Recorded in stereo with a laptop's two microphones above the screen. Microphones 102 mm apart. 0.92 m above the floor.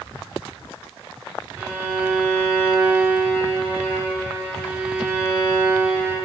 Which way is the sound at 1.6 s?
15° right (ahead or behind).